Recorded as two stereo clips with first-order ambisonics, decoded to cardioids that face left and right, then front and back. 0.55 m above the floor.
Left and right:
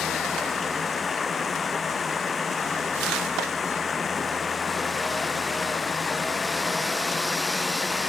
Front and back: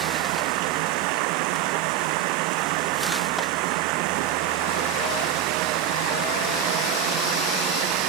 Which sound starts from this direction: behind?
Running water, at 0.0 s.